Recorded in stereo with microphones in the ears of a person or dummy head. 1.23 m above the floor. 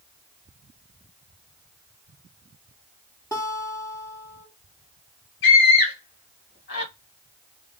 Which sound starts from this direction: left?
A scream, at 5.4 s.